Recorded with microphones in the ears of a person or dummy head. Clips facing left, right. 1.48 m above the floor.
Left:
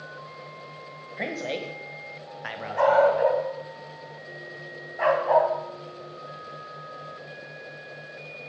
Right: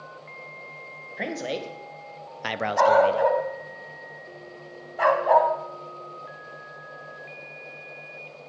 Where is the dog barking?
55° right (ahead or behind), 3 m.